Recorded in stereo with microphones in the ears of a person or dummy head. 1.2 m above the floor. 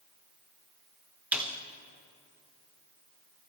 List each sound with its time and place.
1.3 s a snare drum: centre (ahead or behind), 1.0 m